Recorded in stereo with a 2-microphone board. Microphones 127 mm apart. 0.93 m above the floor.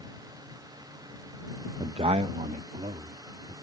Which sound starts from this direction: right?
A man speaking, at 1.8 s.